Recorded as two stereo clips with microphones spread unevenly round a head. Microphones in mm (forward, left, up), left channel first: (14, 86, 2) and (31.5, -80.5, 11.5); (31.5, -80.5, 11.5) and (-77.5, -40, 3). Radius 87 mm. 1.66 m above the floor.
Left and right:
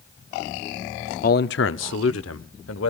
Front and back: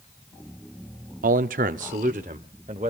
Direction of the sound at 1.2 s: 140° left.